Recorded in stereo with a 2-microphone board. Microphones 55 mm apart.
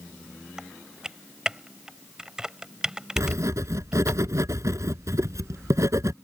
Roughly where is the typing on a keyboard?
Centre.